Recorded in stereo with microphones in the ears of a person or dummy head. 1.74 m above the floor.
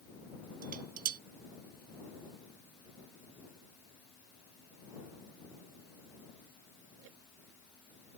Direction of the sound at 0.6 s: 40° right (ahead or behind).